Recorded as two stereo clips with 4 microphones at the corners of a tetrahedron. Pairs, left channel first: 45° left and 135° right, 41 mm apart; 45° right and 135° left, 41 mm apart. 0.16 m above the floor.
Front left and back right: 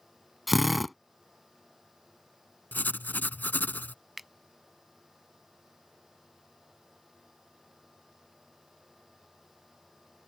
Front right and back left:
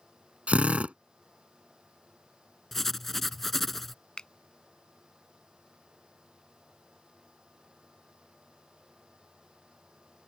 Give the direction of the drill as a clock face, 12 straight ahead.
8 o'clock.